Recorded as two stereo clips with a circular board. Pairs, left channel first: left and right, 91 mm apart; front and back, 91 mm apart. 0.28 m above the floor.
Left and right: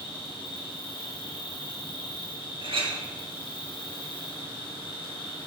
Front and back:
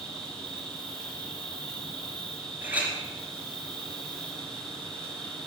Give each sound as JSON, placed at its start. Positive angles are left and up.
{"t": 0.0, "sound": "an insect", "azimuth_deg": 80, "distance_m": 3.0}
{"t": 2.6, "sound": "a clink", "azimuth_deg": -110, "distance_m": 3.0}